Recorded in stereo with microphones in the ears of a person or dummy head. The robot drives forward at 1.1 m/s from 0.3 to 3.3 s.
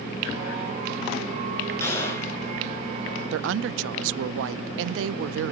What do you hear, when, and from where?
1.8 s a gunshot: 15° left (ahead or behind), 6 m; by 2.3 s 20° left (ahead or behind), 5.5 m
3.3 s a woman speaking: 65° right (ahead or behind), 0.5 m